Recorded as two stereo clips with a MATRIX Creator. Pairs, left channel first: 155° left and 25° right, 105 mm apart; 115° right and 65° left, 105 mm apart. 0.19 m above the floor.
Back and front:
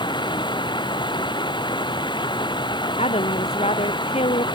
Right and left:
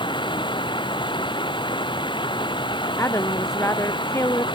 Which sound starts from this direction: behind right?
Running water, at 0.0 s.